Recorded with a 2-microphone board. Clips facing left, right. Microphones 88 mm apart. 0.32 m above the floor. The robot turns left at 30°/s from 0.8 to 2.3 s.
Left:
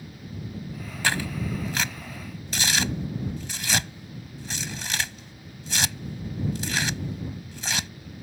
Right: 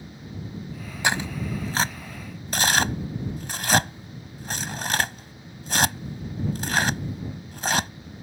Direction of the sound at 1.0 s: 20° right (ahead or behind).